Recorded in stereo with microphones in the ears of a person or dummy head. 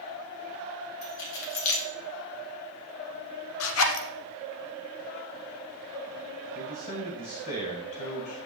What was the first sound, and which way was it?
Keys jangling, 65° left (ahead or behind).